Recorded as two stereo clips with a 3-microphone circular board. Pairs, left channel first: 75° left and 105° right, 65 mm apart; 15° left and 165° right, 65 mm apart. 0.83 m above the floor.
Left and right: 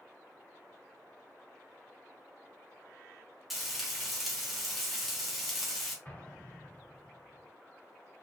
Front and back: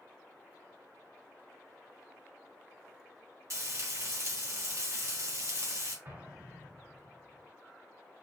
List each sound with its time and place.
3.5 s frying: 165° left, 1.9 m
6.0 s an explosion: 140° left, 1.5 m